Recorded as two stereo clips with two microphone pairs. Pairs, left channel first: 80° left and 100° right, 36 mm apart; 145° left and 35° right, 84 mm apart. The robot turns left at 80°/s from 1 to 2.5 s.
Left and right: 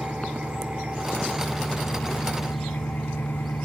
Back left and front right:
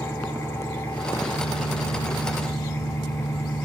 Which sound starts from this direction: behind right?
An engine running, at 0.0 s.